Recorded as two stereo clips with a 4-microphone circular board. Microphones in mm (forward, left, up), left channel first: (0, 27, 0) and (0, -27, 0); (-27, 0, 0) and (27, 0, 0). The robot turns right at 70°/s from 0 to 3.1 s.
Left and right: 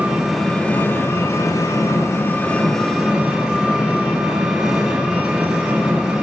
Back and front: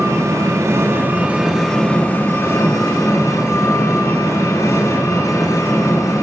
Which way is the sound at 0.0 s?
25° right.